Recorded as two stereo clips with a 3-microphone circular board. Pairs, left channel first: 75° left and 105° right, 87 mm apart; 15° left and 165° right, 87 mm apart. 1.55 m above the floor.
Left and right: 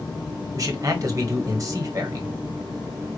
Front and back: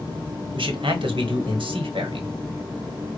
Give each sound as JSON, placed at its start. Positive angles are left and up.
{"t": 0.5, "sound": "a man speaking", "azimuth_deg": -155, "distance_m": 1.3}